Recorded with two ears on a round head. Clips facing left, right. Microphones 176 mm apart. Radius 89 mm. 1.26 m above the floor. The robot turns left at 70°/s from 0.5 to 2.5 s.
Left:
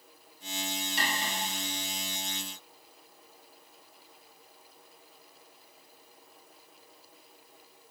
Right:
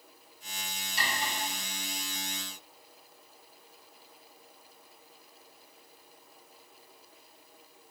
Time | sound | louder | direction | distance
1.0 | cutlery clinking | right 1 dB | 45° left (ahead or behind) | 1.3 m